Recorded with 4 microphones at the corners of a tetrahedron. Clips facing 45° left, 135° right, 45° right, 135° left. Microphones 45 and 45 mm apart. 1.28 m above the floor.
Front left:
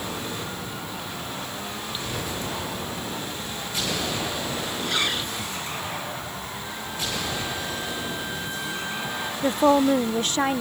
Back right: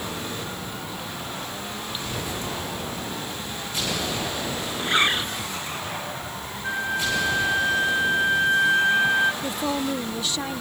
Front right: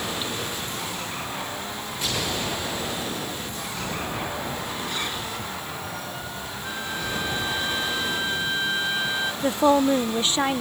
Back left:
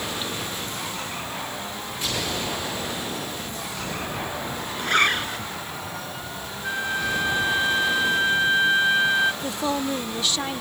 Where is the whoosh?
No whoosh in this recording.